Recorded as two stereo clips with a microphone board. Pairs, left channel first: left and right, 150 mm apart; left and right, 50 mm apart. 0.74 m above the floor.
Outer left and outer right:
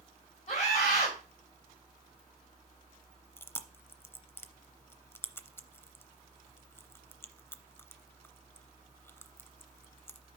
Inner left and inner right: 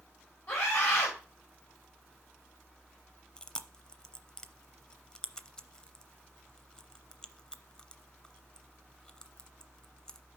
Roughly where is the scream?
Left.